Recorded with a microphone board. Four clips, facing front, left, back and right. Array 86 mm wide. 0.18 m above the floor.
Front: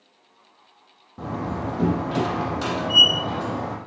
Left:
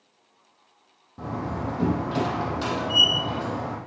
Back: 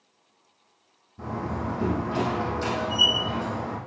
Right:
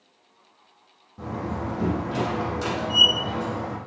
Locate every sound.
1.2 s a door slam: 15° left, 5 m